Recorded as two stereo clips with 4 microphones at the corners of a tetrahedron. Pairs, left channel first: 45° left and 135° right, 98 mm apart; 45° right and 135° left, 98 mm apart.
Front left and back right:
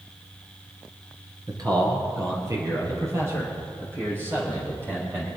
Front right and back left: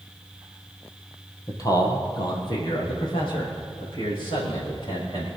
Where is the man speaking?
95° right, 2.5 m; by 5.3 s 70° right, 7.5 m.